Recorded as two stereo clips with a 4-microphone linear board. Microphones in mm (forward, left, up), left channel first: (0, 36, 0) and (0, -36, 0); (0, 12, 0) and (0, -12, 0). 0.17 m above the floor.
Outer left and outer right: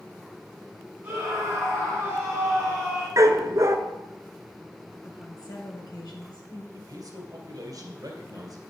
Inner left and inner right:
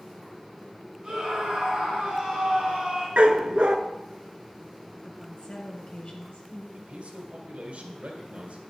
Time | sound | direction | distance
1.0 | a scream | 25° right (ahead or behind) | 5.5 m
3.2 | a dog barking | 50° right (ahead or behind) | 0.8 m
5.0 | a woman speaking | 65° left (ahead or behind) | 2.5 m
6.7 | a man speaking | 60° right (ahead or behind) | 2.5 m